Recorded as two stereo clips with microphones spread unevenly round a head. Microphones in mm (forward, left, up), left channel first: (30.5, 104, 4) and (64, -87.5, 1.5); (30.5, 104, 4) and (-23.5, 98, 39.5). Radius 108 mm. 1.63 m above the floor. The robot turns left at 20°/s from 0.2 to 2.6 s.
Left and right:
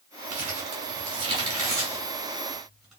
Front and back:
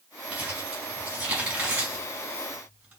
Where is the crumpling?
120° right, 2.5 m; by 3.0 s 170° right, 2.5 m.